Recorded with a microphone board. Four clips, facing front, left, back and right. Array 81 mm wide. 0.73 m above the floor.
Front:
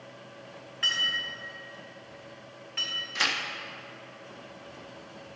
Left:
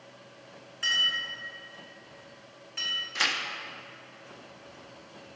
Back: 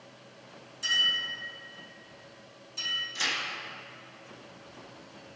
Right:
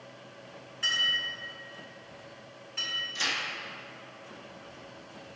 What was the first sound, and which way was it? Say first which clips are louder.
A clink: left 1 dB, even; 5° left.